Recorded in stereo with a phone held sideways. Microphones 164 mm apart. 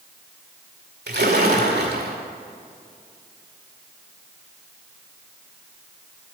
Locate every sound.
1.1 s a splash: 85° right, 1.9 m